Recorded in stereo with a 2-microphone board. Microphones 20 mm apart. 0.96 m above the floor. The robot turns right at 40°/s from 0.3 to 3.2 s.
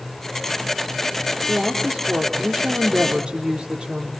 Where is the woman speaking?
120° right, 2.5 m; by 4.1 s 50° right, 2.5 m.